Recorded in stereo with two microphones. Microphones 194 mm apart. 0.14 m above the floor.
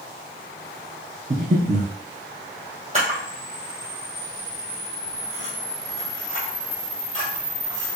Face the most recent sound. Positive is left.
turn(degrees=-35)  # may be behind; listen again after turning